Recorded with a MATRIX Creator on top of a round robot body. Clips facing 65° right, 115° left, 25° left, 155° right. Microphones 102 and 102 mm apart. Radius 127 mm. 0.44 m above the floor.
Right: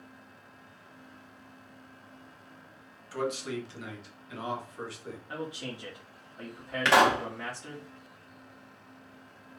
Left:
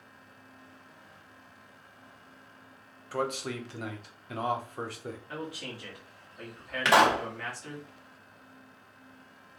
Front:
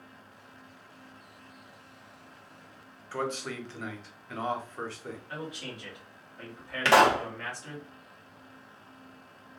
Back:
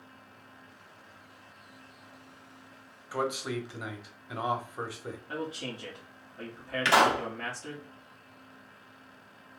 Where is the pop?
25° left, 2.0 m.